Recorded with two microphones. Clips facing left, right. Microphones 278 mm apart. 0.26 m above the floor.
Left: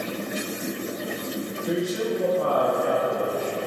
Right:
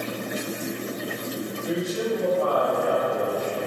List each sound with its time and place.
1.6 s a man speaking: 20° left (ahead or behind), 1.7 m; by 3.6 s 25° left (ahead or behind), 1.6 m